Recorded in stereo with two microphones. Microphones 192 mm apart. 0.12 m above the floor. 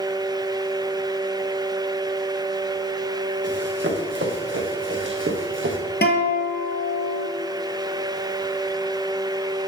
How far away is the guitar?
About 1.6 m.